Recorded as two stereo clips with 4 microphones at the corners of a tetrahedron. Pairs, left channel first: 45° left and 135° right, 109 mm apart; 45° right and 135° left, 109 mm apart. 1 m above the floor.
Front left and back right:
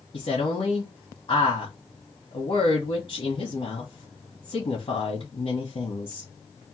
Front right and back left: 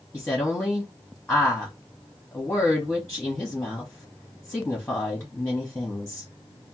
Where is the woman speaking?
25° left, 1.1 m.